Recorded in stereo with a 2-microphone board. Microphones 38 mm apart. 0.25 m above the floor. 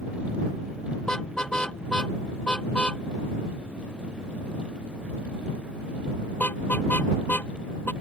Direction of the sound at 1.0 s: 20° left (ahead or behind).